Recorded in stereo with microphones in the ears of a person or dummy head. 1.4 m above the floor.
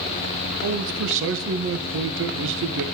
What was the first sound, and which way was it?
A man speaking, 70° right (ahead or behind).